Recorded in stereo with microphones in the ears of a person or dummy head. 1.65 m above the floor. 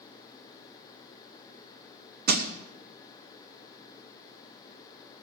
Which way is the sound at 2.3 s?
55° right (ahead or behind).